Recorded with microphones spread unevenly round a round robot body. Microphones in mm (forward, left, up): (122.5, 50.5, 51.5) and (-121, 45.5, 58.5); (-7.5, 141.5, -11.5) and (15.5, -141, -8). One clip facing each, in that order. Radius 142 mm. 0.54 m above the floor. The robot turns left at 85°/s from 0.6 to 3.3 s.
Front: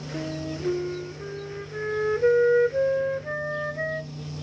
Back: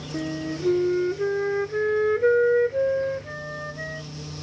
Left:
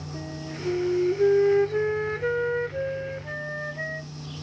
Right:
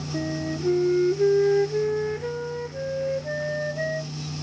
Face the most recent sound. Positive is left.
turn(degrees=25)